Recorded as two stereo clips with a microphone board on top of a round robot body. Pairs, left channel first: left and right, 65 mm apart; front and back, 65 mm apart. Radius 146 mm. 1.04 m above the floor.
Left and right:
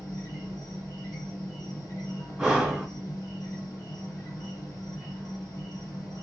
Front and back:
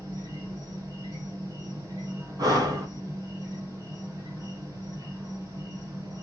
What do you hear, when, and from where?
0.0 s an insect: 140° left, 1.7 m
2.4 s breathing: 170° right, 1.3 m